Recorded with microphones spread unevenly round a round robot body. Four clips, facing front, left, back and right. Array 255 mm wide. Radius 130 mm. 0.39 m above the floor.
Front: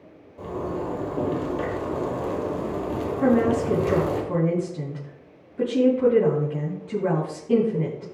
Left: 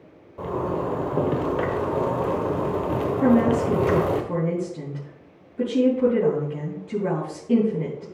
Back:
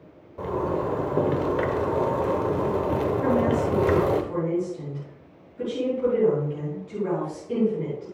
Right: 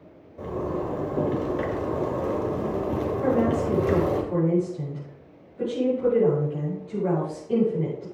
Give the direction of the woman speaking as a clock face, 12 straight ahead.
10 o'clock.